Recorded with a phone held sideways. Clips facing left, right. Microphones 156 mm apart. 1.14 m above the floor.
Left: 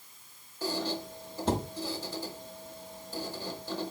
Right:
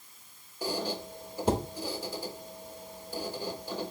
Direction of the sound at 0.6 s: 10° right (ahead or behind).